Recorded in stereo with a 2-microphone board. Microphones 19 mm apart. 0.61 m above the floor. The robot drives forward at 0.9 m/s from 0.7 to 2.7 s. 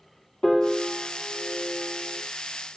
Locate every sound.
0.4 s a piano: 35° left (ahead or behind), 3.5 m; by 2.2 s 55° left (ahead or behind), 2.5 m